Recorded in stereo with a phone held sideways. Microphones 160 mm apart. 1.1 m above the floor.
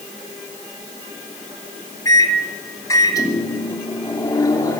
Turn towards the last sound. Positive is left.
turn(degrees=20)  # may be behind; listen again after turning